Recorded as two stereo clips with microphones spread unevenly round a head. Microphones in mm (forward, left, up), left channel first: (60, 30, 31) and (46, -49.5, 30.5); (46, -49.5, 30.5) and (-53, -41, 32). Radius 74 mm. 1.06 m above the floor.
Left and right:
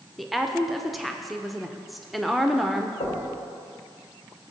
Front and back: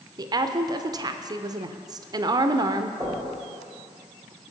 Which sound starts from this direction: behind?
A woman speaking, at 0.2 s.